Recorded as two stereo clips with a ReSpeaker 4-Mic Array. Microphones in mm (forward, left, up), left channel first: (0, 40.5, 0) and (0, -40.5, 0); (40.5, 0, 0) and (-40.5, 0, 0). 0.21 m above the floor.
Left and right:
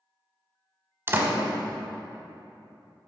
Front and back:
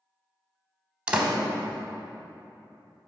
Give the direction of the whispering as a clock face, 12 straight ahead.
No whispering in this recording.